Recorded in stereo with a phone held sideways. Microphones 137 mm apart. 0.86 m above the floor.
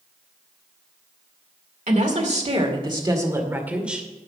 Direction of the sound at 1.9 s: 65° right (ahead or behind).